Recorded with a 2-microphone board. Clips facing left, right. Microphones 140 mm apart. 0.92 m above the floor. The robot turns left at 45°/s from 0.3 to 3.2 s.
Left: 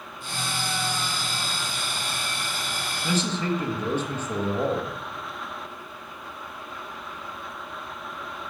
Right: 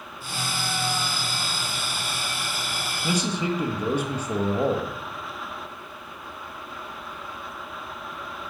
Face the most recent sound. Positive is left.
turn(degrees=-10)  # may be behind; listen again after turning